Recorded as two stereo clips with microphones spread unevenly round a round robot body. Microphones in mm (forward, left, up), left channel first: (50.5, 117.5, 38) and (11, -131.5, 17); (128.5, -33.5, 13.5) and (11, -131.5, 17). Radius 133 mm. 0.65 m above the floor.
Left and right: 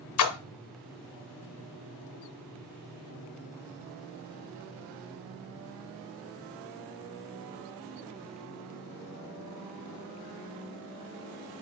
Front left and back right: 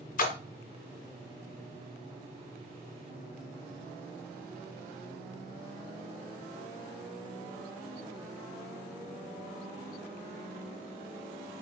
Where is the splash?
85° left, 0.6 m.